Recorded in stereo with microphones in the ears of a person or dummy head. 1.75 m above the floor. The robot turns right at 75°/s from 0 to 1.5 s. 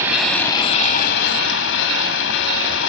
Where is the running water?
15° right, 4 m; by 2.9 s 100° left, 4 m.